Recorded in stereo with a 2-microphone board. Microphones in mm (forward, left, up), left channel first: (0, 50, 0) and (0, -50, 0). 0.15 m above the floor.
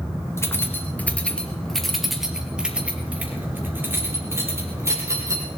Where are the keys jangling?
25° left (ahead or behind), 2 m; by 5.5 s 30° right (ahead or behind), 4 m.